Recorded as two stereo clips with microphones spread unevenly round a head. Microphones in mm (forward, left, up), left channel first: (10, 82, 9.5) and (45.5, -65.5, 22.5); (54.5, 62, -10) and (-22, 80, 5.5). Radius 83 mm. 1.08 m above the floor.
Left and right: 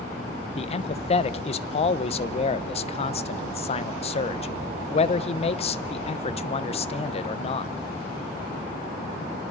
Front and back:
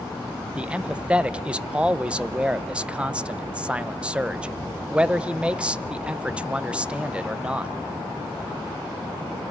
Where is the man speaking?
85° left, 0.7 m.